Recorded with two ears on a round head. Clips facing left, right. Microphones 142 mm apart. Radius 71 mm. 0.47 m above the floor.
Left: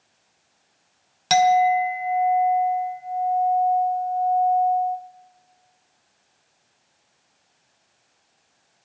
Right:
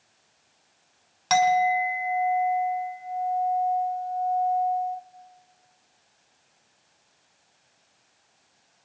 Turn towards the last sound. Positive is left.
turn(degrees=40)  # may be behind; listen again after turning